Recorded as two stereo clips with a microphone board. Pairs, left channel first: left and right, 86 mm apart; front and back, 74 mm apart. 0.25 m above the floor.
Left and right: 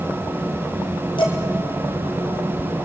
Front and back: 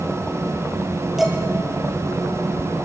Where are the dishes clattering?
95° left, 3.5 m.